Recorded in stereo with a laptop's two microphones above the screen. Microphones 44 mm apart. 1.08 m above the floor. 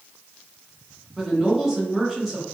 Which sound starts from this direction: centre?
A woman speaking, at 1.2 s.